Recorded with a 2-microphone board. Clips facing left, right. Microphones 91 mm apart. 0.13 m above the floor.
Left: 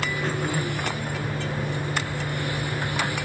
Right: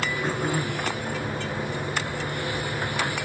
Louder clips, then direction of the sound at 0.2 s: Right 1 dB; 15° right (ahead or behind).